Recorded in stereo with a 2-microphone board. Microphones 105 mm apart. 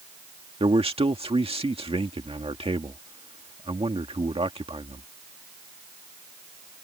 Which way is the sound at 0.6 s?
65° right (ahead or behind).